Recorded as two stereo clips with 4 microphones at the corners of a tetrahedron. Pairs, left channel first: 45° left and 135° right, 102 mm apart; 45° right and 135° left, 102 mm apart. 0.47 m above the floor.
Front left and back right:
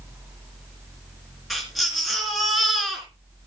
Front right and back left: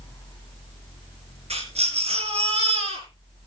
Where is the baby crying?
135° left, 4 m.